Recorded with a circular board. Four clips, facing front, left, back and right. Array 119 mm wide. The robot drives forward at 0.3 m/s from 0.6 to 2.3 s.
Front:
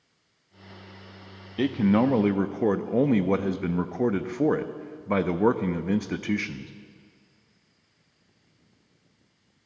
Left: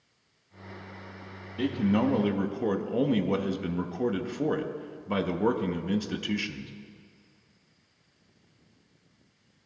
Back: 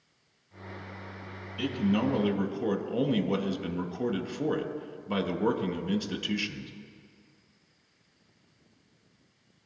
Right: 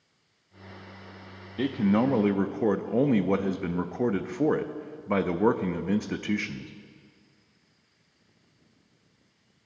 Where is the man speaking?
15° right, 0.6 m; by 6.7 s 30° right, 0.5 m.